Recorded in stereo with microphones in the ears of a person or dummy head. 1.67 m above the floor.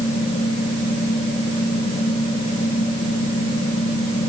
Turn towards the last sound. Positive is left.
turn(degrees=35)  # may be behind; listen again after turning